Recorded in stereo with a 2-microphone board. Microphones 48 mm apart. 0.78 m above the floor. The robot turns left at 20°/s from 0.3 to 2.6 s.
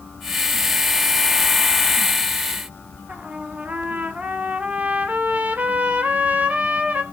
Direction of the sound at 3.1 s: 30° right (ahead or behind).